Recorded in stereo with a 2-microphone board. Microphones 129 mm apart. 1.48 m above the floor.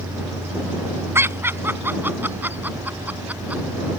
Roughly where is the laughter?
Centre.